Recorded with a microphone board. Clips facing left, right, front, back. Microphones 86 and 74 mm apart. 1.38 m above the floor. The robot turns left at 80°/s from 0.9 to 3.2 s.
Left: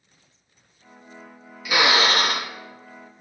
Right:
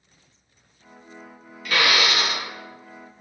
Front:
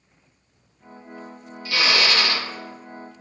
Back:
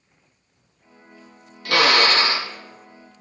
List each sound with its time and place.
1.6 s a drill: 170° left, 0.6 m; by 2.5 s 105° left, 0.6 m